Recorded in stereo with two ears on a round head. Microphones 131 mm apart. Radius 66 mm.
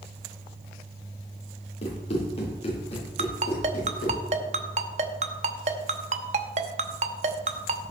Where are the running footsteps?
45° left (ahead or behind), 5.5 m; by 4.2 s 40° left (ahead or behind), 7 m.